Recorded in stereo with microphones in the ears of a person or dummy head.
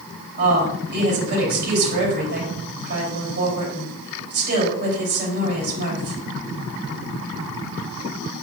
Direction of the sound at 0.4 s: 55° right (ahead or behind).